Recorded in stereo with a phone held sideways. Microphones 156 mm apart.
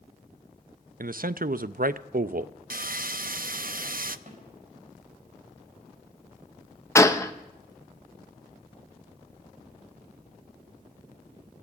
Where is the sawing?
65° right (ahead or behind), 0.5 m.